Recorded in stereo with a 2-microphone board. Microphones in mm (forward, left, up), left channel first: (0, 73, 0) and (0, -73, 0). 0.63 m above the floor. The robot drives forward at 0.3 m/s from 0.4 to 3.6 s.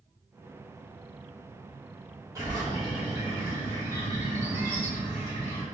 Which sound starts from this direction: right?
A bird, at 2.4 s.